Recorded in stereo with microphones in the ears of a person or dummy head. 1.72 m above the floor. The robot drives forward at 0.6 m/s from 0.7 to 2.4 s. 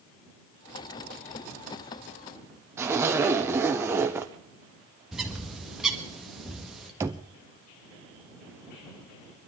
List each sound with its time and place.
2.8 s a zipper: 10° right (ahead or behind), 0.7 m
5.1 s a bird: centre (ahead or behind), 1.5 m
7.0 s knocking: 10° right (ahead or behind), 0.6 m